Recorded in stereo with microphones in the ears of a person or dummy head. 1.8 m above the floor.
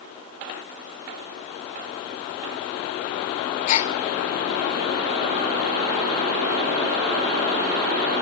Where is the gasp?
45° left (ahead or behind), 0.8 m.